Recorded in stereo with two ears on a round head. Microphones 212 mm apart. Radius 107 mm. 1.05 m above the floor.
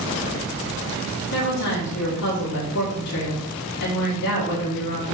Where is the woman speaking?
80° left, 2.5 m.